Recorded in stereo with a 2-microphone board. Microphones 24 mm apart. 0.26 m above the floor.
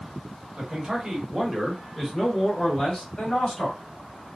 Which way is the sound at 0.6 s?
35° right (ahead or behind).